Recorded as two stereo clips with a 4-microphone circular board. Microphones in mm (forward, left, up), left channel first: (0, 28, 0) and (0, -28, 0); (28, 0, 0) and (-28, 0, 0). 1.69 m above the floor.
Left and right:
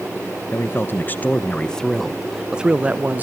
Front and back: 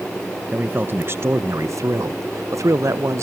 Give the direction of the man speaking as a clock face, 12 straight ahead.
8 o'clock.